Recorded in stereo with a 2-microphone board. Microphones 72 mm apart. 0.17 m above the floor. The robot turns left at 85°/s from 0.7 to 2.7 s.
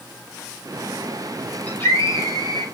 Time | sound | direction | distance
1.7 | a scream | 170° left | 5 m